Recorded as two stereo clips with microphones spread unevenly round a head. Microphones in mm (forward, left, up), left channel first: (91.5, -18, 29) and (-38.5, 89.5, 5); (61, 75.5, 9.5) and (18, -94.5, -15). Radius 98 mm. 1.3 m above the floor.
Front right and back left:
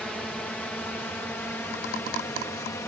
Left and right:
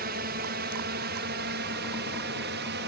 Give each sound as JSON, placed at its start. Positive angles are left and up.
{"t": 0.0, "sound": "a drone", "azimuth_deg": -130}